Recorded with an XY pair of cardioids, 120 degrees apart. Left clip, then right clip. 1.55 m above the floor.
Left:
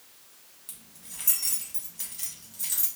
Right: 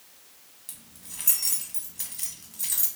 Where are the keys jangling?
10° right, 1.3 m.